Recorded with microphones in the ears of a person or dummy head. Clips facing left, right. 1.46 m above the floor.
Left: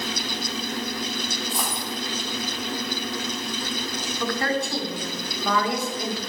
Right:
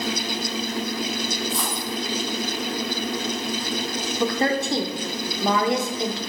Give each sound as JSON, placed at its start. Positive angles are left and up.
{"t": 1.5, "sound": "a dropped coin", "side_deg": 15, "distance_m": 1.9}
{"t": 4.2, "sound": "a woman speaking", "side_deg": -25, "distance_m": 0.9}